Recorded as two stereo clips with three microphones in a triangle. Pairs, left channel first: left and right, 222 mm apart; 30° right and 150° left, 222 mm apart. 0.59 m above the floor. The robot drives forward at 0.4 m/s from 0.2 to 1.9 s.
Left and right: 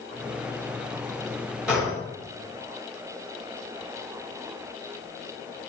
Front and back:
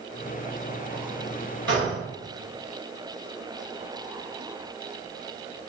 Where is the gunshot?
175° right, 1.7 m.